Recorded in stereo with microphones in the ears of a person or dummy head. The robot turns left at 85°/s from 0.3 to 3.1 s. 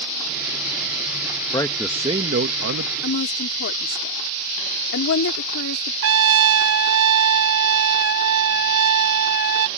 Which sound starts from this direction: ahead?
A man speaking, at 1.5 s.